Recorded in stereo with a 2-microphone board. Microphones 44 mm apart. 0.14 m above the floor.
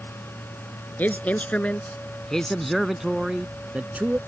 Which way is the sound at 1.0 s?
35° left (ahead or behind).